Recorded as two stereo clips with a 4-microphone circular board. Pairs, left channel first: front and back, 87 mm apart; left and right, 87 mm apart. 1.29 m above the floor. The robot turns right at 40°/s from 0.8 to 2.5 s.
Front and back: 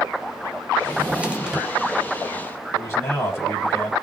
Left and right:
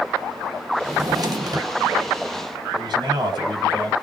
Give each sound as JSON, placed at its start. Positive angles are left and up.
{"t": 0.8, "sound": "a drawer", "azimuth_deg": -125, "distance_m": 0.8}
{"t": 2.7, "sound": "a man speaking", "azimuth_deg": -60, "distance_m": 2.5}